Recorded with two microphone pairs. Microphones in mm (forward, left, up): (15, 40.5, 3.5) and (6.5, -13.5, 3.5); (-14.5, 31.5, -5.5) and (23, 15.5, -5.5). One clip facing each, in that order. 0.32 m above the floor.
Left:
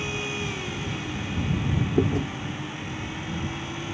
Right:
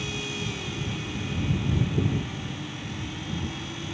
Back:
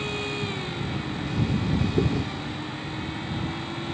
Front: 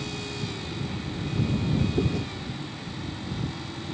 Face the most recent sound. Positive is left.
turn(degrees=80)